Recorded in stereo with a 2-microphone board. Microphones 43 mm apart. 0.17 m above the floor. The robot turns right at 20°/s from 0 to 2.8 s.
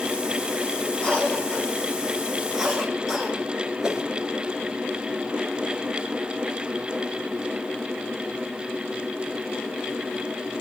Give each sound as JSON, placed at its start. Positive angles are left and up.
{"t": 1.0, "sound": "a cough", "side_deg": 30, "distance_m": 7.0}
{"t": 3.8, "sound": "a whoosh", "side_deg": -20, "distance_m": 1.7}